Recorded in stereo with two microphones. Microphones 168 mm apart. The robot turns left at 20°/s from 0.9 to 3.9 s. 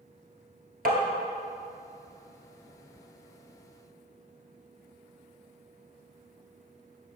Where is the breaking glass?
I don't hear breaking glass.